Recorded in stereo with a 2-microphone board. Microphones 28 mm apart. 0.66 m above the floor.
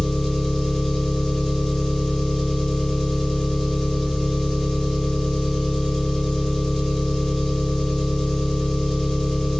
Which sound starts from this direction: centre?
An engine running, at 0.0 s.